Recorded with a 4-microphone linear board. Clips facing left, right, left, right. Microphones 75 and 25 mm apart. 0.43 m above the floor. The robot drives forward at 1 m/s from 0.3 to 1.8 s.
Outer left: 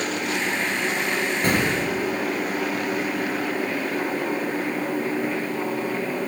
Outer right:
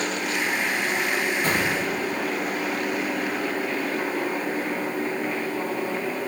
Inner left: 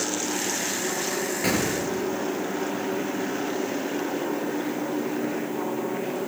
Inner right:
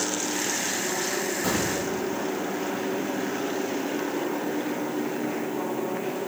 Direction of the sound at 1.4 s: 70° left (ahead or behind).